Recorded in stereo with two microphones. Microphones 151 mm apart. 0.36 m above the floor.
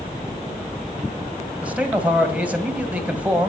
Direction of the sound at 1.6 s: 10° right (ahead or behind).